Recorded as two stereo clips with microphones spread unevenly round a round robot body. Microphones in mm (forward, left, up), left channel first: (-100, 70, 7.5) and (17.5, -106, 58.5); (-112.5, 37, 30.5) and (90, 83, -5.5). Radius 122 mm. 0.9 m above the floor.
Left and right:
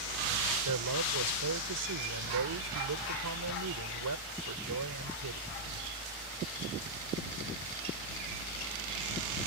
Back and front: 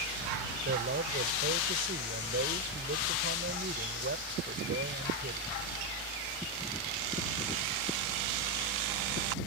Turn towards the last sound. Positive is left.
turn(degrees=-40)